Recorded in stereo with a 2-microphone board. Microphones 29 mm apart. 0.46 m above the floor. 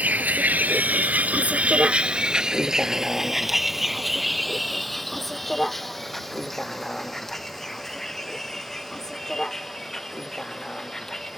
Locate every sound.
0.0 s a vehicle: 75° right (ahead or behind); by 11.4 s 20° left (ahead or behind)